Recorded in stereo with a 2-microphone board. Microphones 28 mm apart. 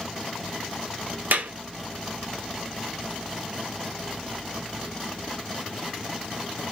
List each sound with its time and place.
1.3 s a clap: 70° right (ahead or behind), 0.6 m